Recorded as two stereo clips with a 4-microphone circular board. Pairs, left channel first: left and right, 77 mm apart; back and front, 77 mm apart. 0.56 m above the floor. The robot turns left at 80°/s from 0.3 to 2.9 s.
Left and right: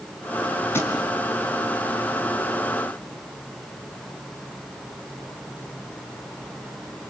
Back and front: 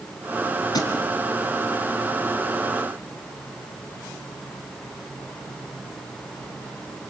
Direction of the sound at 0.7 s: 150° left.